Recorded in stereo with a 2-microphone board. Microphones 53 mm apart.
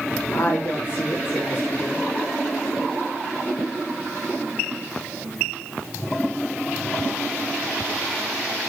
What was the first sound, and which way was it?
A woman speaking, 40° left (ahead or behind).